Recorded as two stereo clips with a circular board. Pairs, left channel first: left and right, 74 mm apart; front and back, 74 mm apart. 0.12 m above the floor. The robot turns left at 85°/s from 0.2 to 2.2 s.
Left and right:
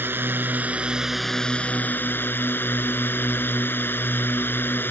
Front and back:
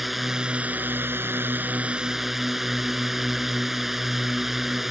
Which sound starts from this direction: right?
A drone, at 0.0 s.